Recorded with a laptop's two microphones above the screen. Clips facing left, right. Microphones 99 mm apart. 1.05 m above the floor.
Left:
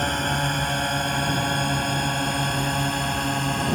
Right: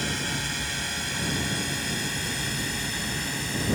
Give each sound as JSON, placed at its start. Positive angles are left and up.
{"t": 0.0, "sound": "a drone", "side_deg": 45}